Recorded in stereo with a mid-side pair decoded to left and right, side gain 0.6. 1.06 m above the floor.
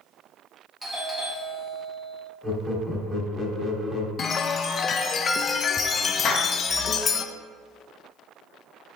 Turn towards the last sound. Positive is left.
turn(degrees=55)